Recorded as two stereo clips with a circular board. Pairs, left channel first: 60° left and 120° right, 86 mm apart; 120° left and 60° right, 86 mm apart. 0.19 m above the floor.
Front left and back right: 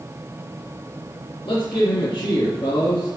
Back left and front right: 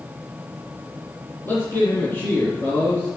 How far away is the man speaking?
About 3 m.